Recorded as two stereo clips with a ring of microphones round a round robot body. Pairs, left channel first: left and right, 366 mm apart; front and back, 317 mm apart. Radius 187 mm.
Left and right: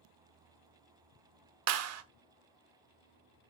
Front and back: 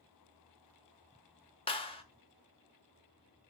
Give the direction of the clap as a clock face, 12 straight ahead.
2 o'clock.